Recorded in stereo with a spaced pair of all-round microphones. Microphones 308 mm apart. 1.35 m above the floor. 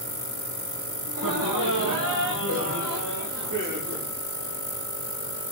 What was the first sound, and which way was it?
Laughter, 75° right (ahead or behind).